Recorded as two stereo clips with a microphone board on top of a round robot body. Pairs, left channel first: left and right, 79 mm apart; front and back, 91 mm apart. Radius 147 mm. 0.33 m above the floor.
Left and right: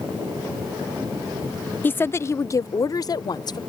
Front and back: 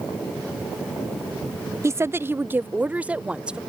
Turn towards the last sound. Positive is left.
turn(degrees=100)